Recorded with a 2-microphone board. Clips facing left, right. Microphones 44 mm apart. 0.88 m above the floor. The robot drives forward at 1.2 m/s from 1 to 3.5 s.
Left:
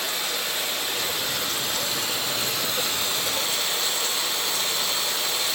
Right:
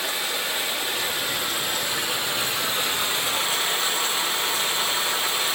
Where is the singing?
No singing in this recording.